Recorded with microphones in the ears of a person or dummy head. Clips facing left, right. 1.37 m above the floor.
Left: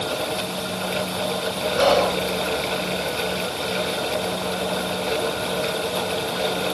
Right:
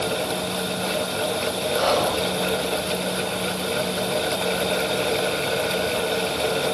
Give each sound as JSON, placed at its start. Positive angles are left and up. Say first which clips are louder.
{"t": 1.8, "sound": "whispering", "louder": "left 4 dB", "side_deg": 65, "distance_m": 1.3}